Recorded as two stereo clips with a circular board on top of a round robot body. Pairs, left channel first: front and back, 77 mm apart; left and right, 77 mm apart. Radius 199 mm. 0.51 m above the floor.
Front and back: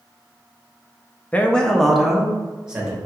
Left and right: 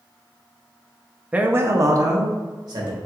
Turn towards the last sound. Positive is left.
turn(degrees=-105)